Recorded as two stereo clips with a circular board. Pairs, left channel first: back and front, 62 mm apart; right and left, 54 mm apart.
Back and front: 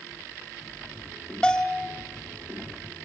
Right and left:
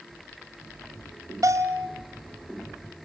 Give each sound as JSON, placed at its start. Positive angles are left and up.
{"t": 1.4, "sound": "a bell", "azimuth_deg": 105, "distance_m": 2.0}